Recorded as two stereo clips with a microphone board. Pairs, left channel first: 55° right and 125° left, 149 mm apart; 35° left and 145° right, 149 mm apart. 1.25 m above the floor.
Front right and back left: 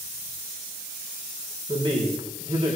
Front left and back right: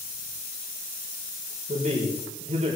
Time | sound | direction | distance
1.7 | a man speaking | 175° left | 4.5 m